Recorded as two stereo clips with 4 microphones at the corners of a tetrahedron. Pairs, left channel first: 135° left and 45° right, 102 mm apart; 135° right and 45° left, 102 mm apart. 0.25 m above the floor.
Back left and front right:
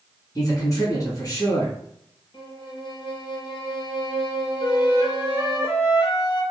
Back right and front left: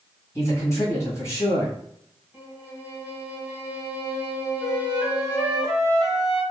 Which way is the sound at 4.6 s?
135° left.